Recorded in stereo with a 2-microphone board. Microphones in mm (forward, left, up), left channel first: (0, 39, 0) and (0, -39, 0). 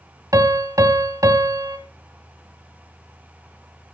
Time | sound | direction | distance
0.3 | a piano | 50° right (ahead or behind) | 1.1 m